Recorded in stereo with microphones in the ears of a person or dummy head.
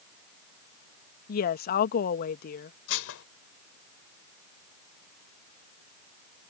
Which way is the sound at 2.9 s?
80° left.